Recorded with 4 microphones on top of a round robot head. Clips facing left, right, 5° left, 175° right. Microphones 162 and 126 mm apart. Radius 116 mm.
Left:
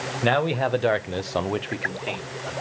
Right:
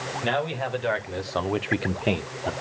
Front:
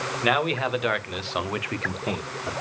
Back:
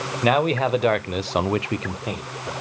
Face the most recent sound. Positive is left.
turn(degrees=-70)